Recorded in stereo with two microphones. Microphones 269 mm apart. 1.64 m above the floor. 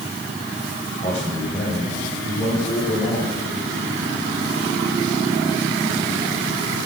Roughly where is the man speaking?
Left.